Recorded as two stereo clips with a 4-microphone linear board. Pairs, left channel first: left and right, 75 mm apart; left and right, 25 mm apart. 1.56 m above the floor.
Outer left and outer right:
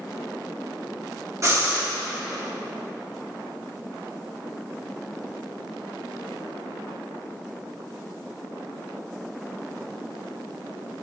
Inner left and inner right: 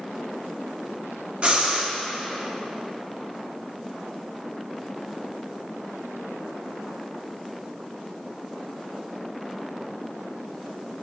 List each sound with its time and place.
1.4 s breathing: 40° right (ahead or behind), 1.7 m